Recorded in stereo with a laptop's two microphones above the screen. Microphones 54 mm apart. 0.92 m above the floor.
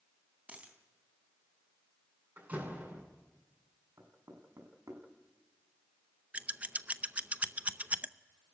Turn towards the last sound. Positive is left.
turn(degrees=-25)  # may be behind; listen again after turning